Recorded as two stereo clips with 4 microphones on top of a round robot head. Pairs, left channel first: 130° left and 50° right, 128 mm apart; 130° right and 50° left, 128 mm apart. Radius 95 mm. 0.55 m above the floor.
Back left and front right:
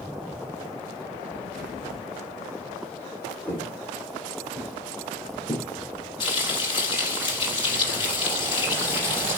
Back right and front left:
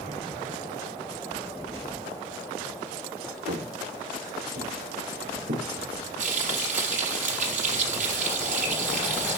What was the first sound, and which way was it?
Footsteps, 55° left.